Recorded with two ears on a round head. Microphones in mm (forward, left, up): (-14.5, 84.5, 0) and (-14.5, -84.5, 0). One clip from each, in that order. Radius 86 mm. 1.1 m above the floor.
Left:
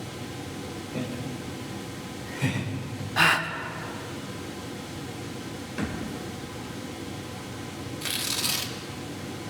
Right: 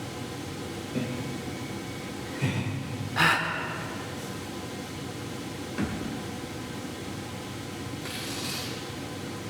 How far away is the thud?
About 2 m.